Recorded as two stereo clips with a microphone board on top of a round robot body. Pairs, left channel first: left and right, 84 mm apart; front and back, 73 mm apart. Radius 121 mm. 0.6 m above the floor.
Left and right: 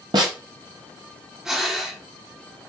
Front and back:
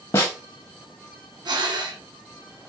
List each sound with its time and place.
0.1 s a snare drum: 50° right, 0.5 m
1.4 s breathing: 175° right, 1.1 m